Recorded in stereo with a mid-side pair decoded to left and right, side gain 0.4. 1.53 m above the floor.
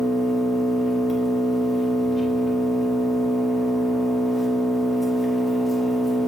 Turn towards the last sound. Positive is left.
turn(degrees=40)